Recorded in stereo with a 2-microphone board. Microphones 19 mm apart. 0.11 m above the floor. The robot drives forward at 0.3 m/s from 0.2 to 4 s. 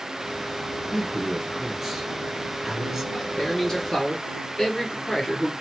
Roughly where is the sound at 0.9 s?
Right.